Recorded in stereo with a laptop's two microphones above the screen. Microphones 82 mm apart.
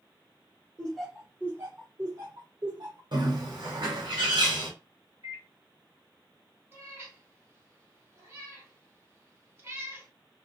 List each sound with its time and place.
0.8 s laughter: 10° left (ahead or behind), 0.8 m; by 3.0 s 60° right (ahead or behind), 1.6 m
3.1 s a bird: 60° right (ahead or behind), 1.6 m
5.2 s a microwave: 55° right (ahead or behind), 1.5 m
6.7 s a cat meowing: 30° right (ahead or behind), 1.9 m